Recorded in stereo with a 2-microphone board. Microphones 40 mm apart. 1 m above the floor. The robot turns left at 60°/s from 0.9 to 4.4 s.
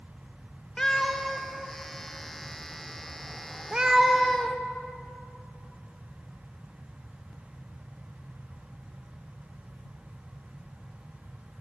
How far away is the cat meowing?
About 0.8 m.